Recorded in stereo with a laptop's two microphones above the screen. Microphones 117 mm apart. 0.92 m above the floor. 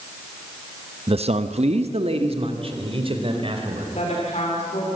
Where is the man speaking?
50° right (ahead or behind), 0.7 m; by 3.9 s 45° right (ahead or behind), 4.5 m.